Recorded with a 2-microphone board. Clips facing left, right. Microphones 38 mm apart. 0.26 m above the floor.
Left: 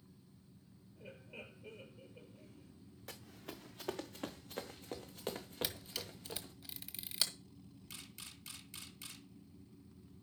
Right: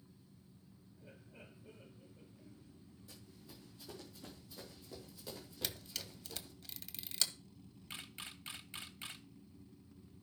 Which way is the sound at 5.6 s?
5° left (ahead or behind).